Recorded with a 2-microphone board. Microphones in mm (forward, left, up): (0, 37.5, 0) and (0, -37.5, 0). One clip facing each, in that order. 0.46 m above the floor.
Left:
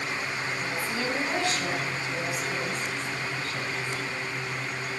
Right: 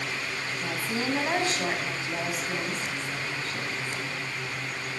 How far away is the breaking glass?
I don't hear breaking glass.